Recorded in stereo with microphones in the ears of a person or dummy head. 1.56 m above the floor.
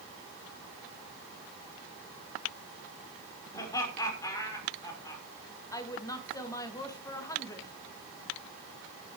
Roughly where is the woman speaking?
Centre.